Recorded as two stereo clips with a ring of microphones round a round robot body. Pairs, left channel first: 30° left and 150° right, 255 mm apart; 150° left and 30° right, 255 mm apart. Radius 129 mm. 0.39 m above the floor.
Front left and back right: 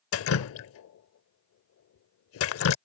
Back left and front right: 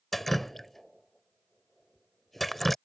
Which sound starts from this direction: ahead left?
Dripping, at 0.1 s.